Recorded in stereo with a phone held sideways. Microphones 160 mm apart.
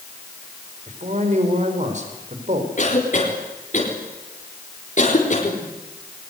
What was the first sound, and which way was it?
A man speaking, 50° right (ahead or behind).